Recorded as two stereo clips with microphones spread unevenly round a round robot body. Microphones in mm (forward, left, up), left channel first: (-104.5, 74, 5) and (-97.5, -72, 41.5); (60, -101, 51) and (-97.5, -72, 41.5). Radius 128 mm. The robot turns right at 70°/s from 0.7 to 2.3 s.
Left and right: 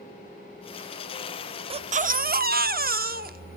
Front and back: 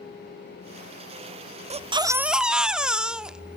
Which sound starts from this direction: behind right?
A baby crying, at 1.7 s.